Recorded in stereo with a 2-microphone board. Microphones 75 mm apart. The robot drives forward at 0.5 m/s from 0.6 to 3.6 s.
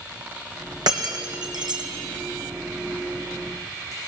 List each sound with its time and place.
0.9 s breaking glass: 70° right (ahead or behind), 3 m; by 4.1 s 85° right, 3 m